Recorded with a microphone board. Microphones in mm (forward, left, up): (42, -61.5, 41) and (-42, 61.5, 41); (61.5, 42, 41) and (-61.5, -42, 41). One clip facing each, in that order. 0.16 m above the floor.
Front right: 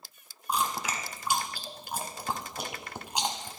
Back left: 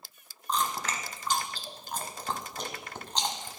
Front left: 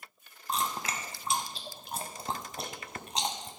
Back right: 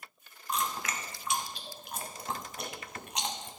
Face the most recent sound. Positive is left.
turn(degrees=15)